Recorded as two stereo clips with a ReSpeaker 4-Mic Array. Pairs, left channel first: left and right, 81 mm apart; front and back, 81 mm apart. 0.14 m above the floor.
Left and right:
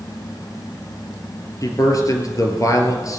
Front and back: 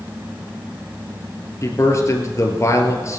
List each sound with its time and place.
1.6 s a man speaking: 50° left, 3 m